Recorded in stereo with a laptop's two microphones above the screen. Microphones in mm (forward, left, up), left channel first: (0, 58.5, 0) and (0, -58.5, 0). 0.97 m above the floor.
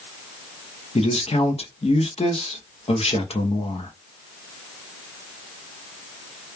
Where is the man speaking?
60° left (ahead or behind), 0.8 m.